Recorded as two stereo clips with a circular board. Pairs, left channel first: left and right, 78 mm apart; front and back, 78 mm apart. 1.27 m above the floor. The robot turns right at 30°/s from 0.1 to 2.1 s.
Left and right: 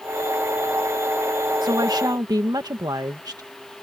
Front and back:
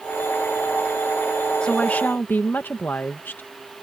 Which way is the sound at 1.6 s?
80° right.